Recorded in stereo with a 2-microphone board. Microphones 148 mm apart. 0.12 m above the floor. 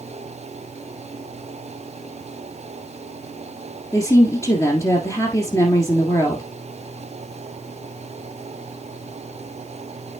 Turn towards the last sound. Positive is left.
turn(degrees=20)  # may be behind; listen again after turning